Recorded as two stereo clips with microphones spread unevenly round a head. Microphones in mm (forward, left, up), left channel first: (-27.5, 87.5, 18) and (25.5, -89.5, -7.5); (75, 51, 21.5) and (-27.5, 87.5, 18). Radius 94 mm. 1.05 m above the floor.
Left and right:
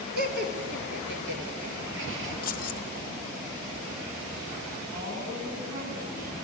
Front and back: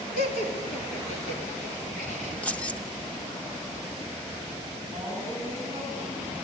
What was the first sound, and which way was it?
Laughter, 35° right.